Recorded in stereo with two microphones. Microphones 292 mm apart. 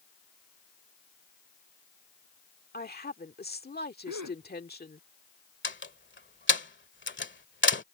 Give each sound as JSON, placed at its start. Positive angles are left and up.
{"t": 2.7, "sound": "a woman speaking", "side_deg": 35}
{"t": 4.1, "sound": "a gasp", "side_deg": -70}
{"t": 5.6, "sound": "a door slam", "side_deg": 40}